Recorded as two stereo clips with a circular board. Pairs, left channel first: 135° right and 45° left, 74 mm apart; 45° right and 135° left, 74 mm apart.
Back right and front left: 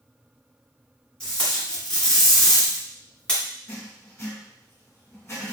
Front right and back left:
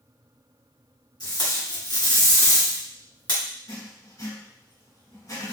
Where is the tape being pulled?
60° right, 1.7 m.